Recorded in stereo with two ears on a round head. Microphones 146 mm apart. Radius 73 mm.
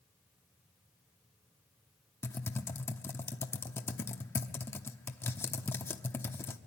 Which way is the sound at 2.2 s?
15° left (ahead or behind).